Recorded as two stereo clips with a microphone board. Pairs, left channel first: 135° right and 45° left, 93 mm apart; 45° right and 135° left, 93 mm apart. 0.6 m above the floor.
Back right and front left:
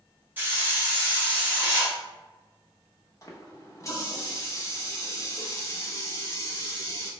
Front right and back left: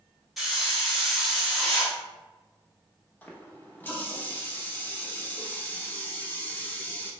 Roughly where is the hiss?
Ahead left.